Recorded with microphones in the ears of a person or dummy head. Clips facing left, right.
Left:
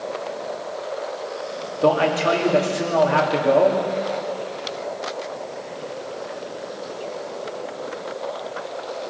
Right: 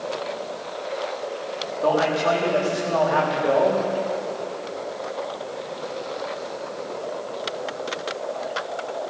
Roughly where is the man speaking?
Left.